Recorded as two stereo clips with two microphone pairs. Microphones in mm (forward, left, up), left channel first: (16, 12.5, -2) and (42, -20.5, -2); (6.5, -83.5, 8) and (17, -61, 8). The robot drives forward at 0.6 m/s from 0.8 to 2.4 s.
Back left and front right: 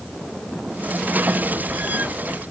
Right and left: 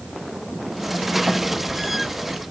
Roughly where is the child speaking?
No child speaking in this recording.